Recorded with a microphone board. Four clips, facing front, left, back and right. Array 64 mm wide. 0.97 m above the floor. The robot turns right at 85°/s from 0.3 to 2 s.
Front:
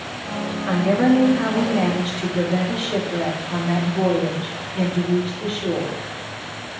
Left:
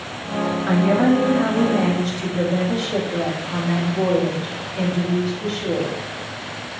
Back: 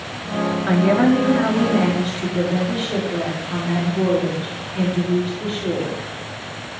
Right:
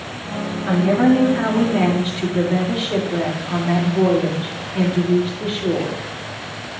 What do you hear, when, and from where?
0.7 s a woman speaking: 155° left, 2 m; by 6.0 s 90° right, 2 m